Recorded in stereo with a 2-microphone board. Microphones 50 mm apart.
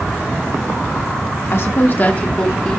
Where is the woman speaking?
50° left (ahead or behind), 1.8 m; by 2.8 s 15° left (ahead or behind), 1.8 m.